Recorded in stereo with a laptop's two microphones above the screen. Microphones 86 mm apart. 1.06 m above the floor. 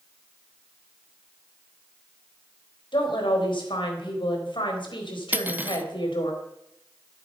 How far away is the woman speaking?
About 4 m.